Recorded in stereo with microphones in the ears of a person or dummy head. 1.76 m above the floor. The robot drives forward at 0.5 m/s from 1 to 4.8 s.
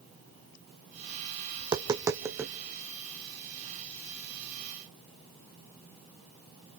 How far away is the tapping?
About 0.8 m.